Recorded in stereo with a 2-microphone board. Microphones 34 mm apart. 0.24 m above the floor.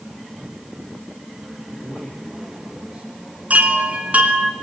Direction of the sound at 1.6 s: 35° right (ahead or behind).